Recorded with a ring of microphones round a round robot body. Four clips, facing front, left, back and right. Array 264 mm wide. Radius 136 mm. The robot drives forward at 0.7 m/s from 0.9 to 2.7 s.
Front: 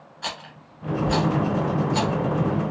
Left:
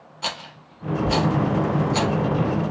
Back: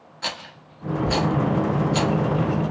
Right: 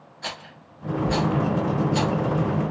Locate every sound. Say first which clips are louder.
0.2 s a rattle: left 4 dB, back 1 dB; 120° left, 0.9 m; by 2.1 s 150° left, 1.6 m